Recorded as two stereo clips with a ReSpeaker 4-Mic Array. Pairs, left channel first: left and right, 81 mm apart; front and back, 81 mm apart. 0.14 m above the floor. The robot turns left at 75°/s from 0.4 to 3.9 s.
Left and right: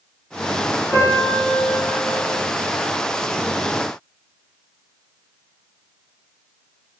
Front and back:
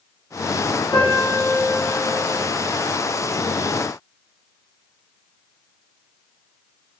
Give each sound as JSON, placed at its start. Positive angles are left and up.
{"t": 0.9, "sound": "a piano", "azimuth_deg": 0, "distance_m": 1.2}